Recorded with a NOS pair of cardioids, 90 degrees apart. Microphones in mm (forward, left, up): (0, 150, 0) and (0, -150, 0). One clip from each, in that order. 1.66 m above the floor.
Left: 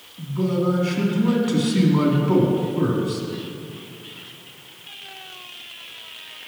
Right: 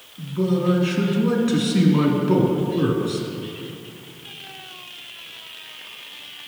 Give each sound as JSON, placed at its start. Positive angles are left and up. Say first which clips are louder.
{"t": 0.2, "sound": "a man speaking", "louder": "even", "azimuth_deg": -5, "distance_m": 3.0}